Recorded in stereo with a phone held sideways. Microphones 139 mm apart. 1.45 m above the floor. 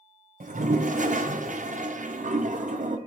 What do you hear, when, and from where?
0.4 s a toilet flushing: 65° right (ahead or behind), 0.6 m